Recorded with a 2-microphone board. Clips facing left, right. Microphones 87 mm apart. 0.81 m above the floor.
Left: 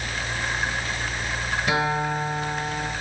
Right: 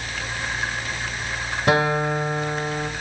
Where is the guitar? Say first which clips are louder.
Right 5 dB; 60° right (ahead or behind), 1.1 m.